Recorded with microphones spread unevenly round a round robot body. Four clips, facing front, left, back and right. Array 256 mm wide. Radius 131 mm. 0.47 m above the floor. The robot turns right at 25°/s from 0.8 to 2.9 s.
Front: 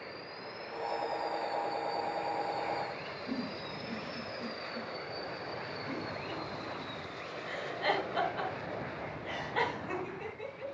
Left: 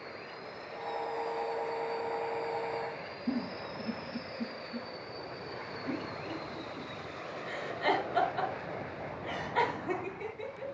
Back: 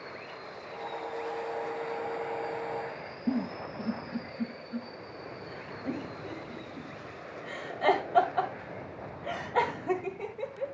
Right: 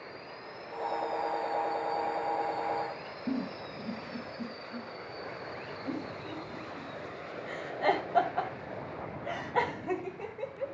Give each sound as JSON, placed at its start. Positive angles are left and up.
{"t": 3.3, "sound": "a giggle", "azimuth_deg": -155, "distance_m": 1.9}